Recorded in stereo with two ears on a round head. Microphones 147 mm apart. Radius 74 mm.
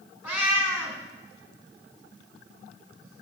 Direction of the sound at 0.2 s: 10° right (ahead or behind).